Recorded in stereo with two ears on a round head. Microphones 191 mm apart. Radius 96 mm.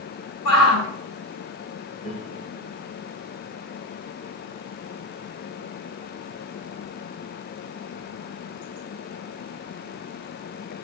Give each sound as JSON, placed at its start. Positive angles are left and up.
{"t": 0.5, "sound": "a shout", "side_deg": 85, "distance_m": 4.5}
{"t": 2.0, "sound": "a piano", "side_deg": 30, "distance_m": 6.0}